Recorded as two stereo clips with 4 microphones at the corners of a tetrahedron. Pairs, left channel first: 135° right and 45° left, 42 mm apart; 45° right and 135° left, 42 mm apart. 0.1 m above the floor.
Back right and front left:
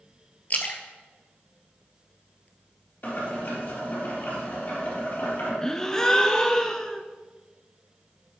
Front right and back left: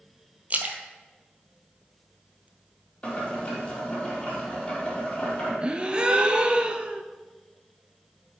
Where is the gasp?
165° left, 0.5 m.